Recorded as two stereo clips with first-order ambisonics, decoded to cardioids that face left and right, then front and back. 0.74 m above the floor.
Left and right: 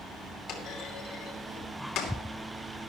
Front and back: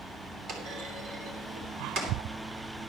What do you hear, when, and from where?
0.5 s a clunk: 130° left, 2.5 m